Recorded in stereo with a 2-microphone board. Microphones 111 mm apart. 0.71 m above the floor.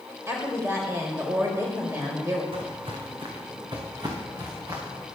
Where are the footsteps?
60° right (ahead or behind), 2.5 m; by 5.0 s 30° right (ahead or behind), 4 m.